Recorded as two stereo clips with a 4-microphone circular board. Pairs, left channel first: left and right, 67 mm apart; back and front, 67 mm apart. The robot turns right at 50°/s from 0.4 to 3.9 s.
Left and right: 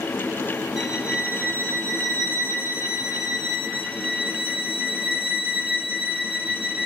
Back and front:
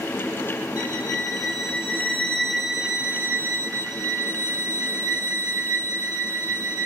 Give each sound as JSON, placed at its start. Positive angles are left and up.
{"t": 0.8, "sound": "a violin", "azimuth_deg": 180, "distance_m": 0.5}